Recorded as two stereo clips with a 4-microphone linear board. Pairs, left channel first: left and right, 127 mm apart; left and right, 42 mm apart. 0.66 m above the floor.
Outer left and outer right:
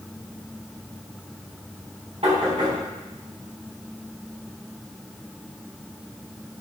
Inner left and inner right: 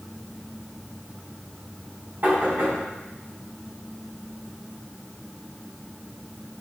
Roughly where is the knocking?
Right.